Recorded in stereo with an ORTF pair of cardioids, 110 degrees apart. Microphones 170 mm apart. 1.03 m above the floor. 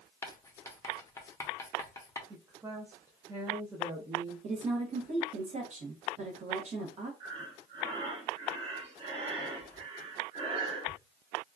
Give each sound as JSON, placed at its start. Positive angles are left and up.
{"t": 0.2, "sound": "writing", "azimuth_deg": 20, "distance_m": 0.6}
{"t": 2.3, "sound": "a woman speaking", "azimuth_deg": -15, "distance_m": 0.7}
{"t": 4.4, "sound": "a woman speaking", "azimuth_deg": -40, "distance_m": 0.9}
{"t": 7.2, "sound": "breathing", "azimuth_deg": -35, "distance_m": 1.2}